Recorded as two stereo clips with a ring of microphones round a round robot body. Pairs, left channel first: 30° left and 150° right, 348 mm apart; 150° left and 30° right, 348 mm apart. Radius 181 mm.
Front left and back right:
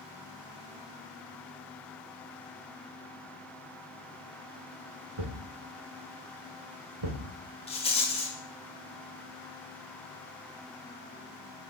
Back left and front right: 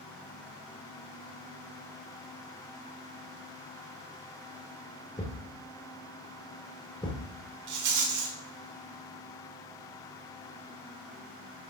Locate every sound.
5.2 s a thud: 130° right, 1.9 m
7.7 s a rattle: 40° right, 2 m